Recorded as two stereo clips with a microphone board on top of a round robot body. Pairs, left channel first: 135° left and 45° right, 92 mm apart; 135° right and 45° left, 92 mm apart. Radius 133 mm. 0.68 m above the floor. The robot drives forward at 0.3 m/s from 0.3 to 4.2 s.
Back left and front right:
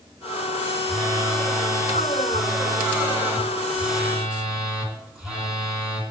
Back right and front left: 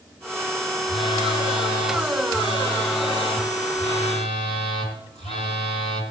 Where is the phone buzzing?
105° right, 2 m; by 6.0 s 125° right, 2.5 m.